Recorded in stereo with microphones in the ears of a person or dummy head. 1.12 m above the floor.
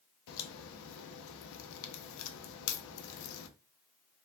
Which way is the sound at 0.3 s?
75° left (ahead or behind).